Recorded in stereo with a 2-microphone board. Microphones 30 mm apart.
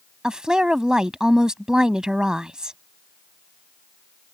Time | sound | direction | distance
0.2 | a woman speaking | 25° right (ahead or behind) | ?